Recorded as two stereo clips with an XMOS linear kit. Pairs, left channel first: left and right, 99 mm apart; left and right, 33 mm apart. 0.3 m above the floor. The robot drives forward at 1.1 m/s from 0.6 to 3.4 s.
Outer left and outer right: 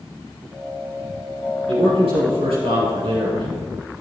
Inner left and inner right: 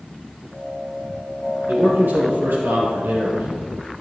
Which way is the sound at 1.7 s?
70° right (ahead or behind).